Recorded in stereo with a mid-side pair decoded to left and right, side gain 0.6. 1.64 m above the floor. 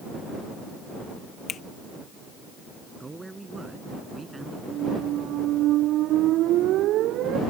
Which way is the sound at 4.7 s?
60° right.